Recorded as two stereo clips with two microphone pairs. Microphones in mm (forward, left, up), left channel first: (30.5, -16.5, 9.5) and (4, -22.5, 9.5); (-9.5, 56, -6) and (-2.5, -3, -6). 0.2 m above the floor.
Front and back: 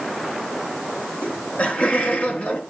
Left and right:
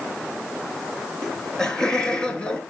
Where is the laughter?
20° left, 4 m; by 2.6 s 30° left, 3.5 m.